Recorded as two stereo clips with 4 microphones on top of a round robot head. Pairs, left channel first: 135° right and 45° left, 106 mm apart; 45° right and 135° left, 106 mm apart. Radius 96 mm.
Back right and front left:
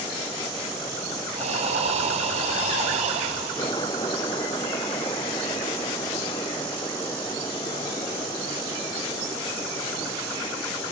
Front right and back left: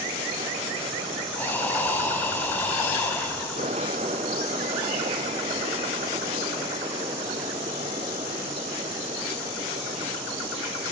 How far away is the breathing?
About 5 m.